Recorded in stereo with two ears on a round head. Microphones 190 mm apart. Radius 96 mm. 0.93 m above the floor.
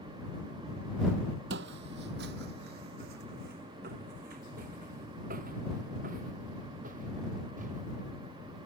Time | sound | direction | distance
1.5 | footsteps | 55° right (ahead or behind) | ?